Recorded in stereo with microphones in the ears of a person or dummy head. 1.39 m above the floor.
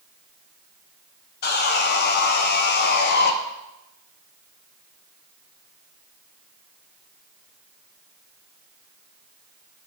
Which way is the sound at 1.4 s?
55° left (ahead or behind).